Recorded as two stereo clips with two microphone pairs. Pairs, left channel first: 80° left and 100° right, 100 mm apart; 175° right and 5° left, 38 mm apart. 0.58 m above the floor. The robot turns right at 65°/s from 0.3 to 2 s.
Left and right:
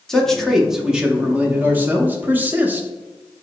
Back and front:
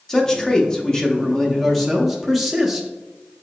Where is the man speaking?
160° left, 0.6 m; by 2.9 s 90° right, 0.6 m.